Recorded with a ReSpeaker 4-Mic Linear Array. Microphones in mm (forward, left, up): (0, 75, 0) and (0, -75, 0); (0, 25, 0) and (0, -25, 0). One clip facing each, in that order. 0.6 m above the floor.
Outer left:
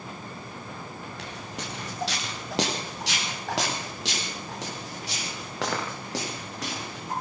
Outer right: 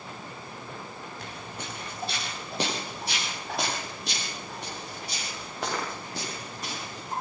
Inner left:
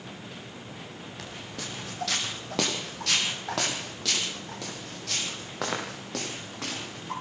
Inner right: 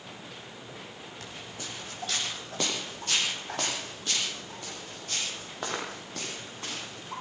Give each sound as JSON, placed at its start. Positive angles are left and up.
{"t": 1.2, "sound": "footsteps", "side_deg": 80, "distance_m": 7.0}